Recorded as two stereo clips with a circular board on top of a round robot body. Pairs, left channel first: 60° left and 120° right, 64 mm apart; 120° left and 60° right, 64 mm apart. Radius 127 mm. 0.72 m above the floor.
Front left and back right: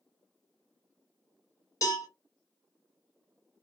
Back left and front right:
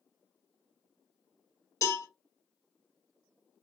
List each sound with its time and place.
1.8 s a cowbell: 90° left, 1.4 m